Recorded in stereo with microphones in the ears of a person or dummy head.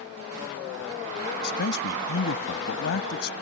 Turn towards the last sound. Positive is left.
turn(degrees=75)  # may be behind; listen again after turning